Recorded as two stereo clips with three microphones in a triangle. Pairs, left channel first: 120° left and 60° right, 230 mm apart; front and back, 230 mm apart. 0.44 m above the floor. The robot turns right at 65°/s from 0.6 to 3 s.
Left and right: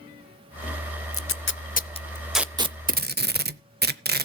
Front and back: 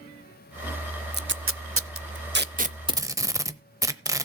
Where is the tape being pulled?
135° left, 0.6 m; by 4.2 s 105° right, 0.6 m.